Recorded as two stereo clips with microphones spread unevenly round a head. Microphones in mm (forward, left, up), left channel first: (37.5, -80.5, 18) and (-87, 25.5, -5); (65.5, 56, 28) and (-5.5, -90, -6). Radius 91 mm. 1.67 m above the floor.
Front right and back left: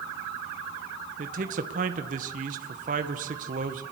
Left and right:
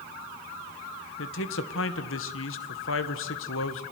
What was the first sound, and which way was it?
A man speaking, 90° left.